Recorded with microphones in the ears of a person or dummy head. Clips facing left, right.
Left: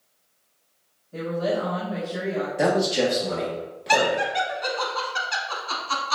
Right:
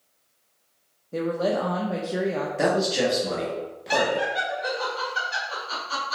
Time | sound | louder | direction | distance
1.1 | a woman speaking | right 1 dB | 60° right (ahead or behind) | 0.5 m
2.6 | a man speaking | left 1 dB | centre (ahead or behind) | 1.3 m
3.9 | laughter | left 2 dB | 80° left | 1.2 m